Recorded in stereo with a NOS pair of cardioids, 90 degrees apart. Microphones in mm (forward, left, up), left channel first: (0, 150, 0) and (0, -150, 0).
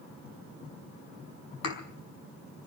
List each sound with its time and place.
1.6 s a thud: 55° left, 5 m